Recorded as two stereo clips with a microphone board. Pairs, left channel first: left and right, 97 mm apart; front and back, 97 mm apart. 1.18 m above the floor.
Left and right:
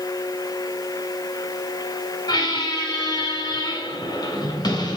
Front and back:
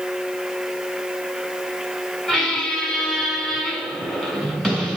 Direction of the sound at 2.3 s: 80° left.